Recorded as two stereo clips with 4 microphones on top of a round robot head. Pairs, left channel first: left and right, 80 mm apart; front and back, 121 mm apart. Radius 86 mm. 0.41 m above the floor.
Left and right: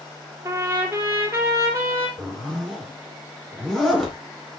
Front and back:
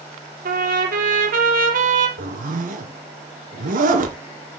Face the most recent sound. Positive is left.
turn(degrees=180)